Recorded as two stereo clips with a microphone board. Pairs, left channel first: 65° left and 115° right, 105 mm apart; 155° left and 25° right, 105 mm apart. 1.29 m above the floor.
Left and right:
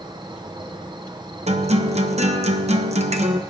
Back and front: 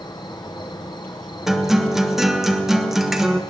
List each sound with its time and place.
0.0 s an insect: 155° right, 0.9 m
1.5 s a guitar: 110° right, 1.0 m